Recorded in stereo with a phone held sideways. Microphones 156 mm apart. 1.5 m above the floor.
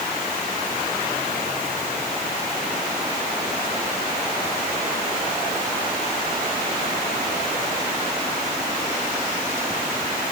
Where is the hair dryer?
No hair dryer in this recording.